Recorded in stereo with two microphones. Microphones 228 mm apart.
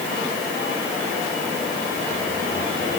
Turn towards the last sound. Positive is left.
No sound to turn to.